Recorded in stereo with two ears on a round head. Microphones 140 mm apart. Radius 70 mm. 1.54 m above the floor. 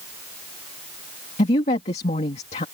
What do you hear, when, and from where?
1.4 s a woman speaking: 40° left (ahead or behind)